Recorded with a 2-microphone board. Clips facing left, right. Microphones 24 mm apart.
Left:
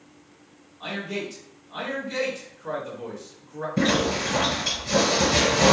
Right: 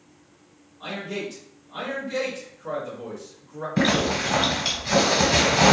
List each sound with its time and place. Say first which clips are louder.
0.8 s a man speaking: even; 15° left (ahead or behind), 1.5 m
3.8 s a zipper: right 1 dB; 70° right (ahead or behind), 1.4 m